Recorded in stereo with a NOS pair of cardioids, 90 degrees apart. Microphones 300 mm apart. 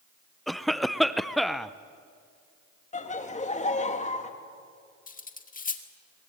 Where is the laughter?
25° left, 2.5 m.